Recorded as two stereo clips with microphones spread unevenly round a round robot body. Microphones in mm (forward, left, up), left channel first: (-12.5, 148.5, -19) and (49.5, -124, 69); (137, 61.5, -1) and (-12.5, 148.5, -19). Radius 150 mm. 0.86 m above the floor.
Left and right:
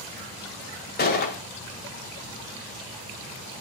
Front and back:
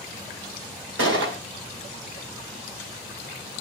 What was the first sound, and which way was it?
A gunshot, 165° left.